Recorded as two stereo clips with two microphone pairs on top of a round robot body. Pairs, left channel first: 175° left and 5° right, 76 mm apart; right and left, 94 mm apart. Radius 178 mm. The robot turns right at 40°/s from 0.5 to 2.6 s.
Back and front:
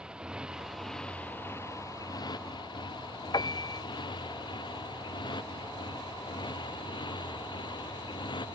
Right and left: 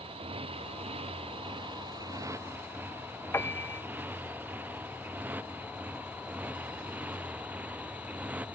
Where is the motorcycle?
75° left; by 8.6 s 165° left.